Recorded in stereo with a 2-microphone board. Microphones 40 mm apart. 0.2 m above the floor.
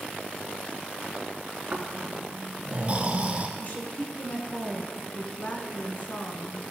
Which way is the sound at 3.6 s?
45° left (ahead or behind).